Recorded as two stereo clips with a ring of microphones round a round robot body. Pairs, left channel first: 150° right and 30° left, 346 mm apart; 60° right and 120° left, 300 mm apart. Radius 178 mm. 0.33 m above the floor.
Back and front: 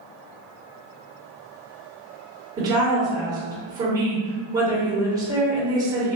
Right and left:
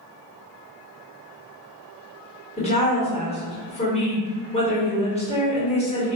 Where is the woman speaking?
35° right, 1.4 m.